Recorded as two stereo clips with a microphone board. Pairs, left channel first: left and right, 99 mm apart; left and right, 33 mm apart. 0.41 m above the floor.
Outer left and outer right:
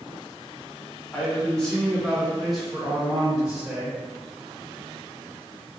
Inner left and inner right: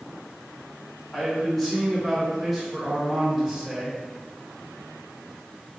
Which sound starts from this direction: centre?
A man speaking, at 1.1 s.